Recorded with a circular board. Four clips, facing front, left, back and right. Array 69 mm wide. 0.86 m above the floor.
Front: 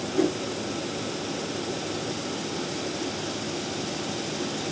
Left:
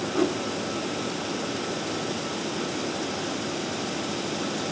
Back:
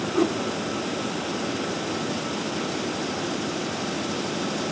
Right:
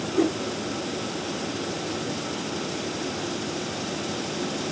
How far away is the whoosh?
About 1.8 m.